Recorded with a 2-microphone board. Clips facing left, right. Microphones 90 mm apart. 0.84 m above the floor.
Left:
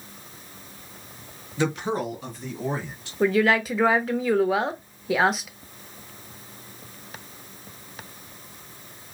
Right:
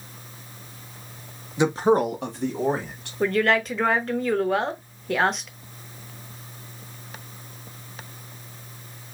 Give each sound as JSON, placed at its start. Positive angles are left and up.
{"t": 1.6, "sound": "a man speaking", "side_deg": -15, "distance_m": 1.0}
{"t": 3.2, "sound": "a woman speaking", "side_deg": 5, "distance_m": 0.8}